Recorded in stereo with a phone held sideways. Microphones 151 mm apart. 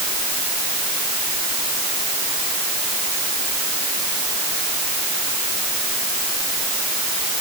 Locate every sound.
Only background noise.